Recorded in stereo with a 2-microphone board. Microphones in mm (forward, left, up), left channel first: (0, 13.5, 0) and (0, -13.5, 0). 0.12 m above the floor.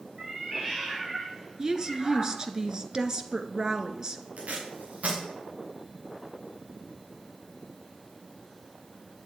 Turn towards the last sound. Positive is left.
turn(degrees=-70)  # may be behind; listen again after turning